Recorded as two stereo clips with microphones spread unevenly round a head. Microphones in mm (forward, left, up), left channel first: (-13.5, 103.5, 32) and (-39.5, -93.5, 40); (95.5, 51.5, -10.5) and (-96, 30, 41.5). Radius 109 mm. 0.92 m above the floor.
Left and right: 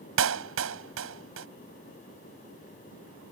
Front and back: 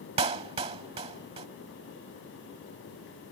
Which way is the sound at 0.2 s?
110° right.